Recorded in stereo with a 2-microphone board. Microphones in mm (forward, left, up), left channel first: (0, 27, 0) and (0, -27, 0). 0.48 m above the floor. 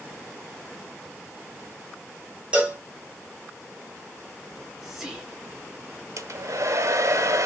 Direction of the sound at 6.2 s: 65° right (ahead or behind).